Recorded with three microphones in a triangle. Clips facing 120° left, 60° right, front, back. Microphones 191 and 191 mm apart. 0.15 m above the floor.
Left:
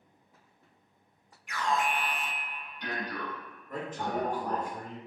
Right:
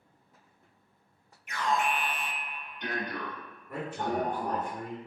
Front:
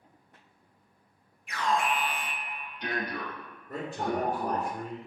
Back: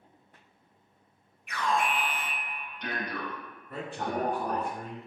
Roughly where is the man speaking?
Ahead.